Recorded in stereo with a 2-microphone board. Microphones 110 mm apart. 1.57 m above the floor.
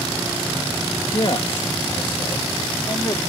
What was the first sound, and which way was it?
A man speaking, 55° left (ahead or behind).